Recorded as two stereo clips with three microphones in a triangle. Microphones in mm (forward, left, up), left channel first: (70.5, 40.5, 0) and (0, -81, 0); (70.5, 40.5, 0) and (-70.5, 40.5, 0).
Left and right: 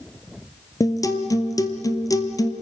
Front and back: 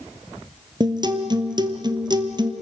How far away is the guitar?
About 1.9 m.